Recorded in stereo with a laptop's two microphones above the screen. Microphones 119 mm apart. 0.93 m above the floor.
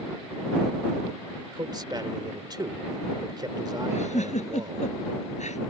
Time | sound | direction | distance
1.5 | a man speaking | 35° right (ahead or behind) | ?
3.9 | a giggle | 80° left | ?